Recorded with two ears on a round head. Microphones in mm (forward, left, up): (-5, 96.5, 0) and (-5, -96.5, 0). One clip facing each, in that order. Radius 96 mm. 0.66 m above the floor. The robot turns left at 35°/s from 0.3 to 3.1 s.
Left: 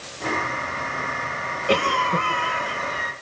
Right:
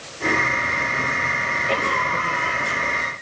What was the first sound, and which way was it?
A cough, 60° left.